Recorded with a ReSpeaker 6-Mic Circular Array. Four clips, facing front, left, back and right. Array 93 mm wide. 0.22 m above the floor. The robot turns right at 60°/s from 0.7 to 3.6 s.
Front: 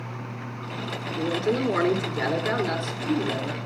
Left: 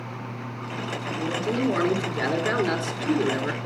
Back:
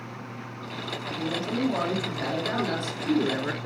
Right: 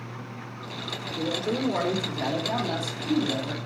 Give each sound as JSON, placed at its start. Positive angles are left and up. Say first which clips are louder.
{"t": 1.2, "sound": "a man speaking", "louder": "left 1 dB, front 4 dB", "azimuth_deg": -10, "distance_m": 3.5}